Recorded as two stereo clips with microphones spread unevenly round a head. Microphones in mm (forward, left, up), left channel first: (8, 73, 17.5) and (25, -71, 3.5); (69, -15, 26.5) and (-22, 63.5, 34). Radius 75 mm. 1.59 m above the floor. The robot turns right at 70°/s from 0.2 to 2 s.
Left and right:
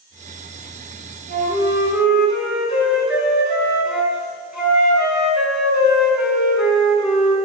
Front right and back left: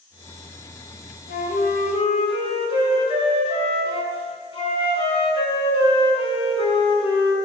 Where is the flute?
45° right, 5.5 m; by 7.3 s 5° left, 5.5 m.